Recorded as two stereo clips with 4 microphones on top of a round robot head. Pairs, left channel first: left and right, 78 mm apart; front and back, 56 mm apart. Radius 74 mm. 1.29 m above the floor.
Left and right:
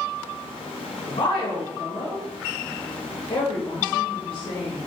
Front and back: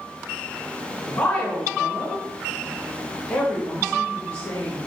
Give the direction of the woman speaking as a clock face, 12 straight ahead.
10 o'clock.